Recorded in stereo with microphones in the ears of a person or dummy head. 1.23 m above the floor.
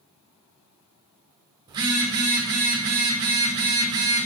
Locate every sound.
1.7 s a phone buzzing: 20° right (ahead or behind), 0.6 m